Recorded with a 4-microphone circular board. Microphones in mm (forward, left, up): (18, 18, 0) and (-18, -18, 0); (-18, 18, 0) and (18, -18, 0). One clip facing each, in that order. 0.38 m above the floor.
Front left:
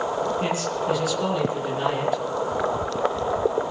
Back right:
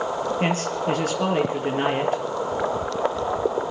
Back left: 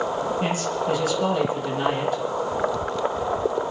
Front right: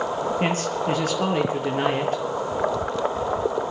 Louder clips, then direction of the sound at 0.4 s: Back right 1 dB, front right 1 dB; 90° right.